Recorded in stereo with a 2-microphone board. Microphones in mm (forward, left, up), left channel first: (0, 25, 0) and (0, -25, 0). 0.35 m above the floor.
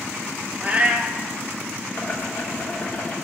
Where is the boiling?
35° left (ahead or behind), 1.1 m.